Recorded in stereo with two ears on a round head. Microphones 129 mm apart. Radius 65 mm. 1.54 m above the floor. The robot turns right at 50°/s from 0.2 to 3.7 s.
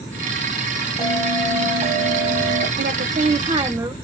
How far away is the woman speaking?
About 0.6 m.